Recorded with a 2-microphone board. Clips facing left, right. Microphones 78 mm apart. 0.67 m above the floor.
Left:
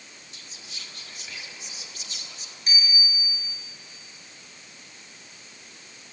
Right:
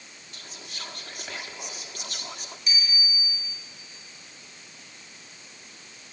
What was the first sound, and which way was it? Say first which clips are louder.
Whispering: right 5 dB; 55° right (ahead or behind).